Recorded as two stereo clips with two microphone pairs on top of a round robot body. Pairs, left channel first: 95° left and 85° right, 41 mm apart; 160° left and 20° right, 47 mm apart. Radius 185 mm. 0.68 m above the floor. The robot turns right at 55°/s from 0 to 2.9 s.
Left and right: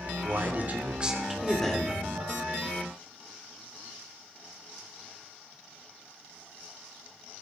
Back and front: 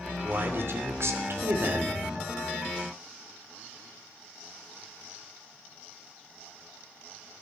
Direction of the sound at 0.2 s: 65° right.